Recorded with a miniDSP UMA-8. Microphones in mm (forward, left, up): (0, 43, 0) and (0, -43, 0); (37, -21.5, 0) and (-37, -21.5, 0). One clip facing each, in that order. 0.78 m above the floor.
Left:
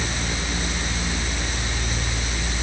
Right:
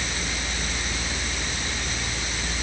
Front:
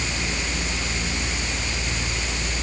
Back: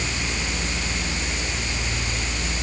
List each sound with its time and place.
Only background noise.